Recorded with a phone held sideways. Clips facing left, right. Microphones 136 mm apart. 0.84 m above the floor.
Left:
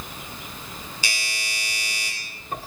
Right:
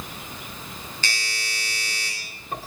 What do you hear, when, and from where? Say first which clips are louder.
1.0 s a doorbell: right 1 dB; 10° left (ahead or behind), 4 m